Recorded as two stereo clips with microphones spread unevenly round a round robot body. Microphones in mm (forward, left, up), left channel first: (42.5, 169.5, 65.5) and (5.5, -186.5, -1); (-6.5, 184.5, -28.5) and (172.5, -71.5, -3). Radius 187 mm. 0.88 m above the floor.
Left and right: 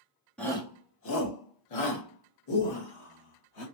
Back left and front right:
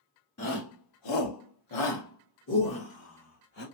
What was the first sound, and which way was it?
A shout, 175° left.